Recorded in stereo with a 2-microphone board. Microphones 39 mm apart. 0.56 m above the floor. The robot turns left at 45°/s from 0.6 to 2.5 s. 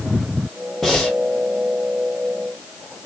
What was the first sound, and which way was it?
Breathing, centre (ahead or behind).